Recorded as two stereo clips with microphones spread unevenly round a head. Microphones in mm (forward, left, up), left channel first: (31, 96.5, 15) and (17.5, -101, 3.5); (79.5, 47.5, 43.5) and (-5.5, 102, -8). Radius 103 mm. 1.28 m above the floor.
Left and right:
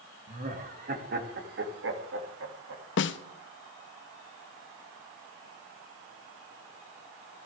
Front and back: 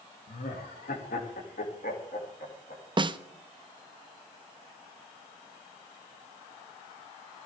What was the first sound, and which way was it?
Laughter, 45° right.